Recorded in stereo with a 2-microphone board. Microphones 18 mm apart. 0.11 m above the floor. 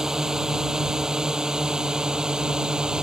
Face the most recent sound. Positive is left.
turn(degrees=-55)  # may be behind; listen again after turning